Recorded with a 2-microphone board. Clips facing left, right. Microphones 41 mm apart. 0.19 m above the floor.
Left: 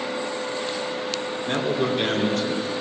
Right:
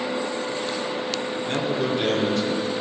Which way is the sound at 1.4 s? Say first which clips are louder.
Left 2 dB; 10° left (ahead or behind).